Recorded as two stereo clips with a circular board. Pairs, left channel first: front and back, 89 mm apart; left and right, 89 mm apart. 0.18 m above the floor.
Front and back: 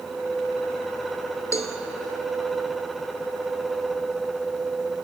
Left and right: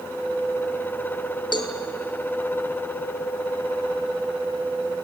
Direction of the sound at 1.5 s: 55° left.